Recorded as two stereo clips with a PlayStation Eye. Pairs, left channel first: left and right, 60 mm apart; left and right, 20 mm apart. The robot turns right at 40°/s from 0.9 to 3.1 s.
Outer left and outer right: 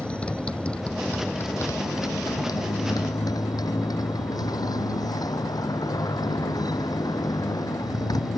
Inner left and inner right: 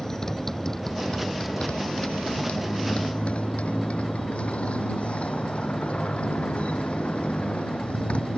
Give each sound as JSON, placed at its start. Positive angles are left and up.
{"t": 0.0, "sound": "a motorcycle", "azimuth_deg": 20}